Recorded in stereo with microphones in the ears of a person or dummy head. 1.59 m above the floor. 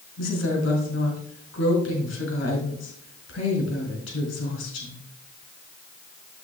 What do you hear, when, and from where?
0.2 s a woman speaking: 75° left (ahead or behind), 4.5 m